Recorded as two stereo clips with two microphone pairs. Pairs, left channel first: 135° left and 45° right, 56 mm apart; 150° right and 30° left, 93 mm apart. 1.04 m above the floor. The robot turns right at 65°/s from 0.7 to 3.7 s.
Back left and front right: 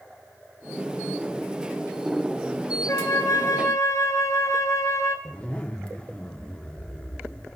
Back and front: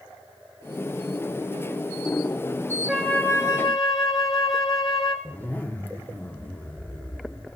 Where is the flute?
120° left, 0.8 m; by 5.2 s 170° left, 0.8 m.